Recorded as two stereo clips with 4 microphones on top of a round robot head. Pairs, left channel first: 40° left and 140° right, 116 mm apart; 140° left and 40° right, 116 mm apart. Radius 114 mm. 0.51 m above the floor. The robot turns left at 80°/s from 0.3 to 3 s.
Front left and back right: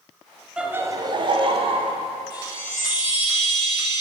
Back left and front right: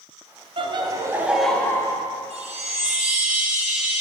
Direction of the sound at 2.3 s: 10° right.